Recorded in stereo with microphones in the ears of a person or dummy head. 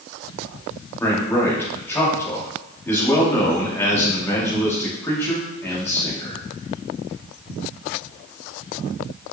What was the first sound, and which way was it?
A man speaking, 15° left (ahead or behind).